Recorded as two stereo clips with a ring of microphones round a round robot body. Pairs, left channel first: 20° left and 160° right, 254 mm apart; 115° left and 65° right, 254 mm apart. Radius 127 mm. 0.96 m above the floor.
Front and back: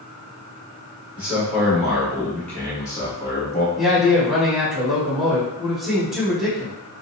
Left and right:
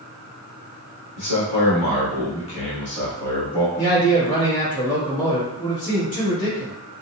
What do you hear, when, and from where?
1.2 s a man speaking: 120° left, 1.9 m; by 3.7 s 50° left, 0.8 m
3.8 s a man speaking: 115° left, 1.4 m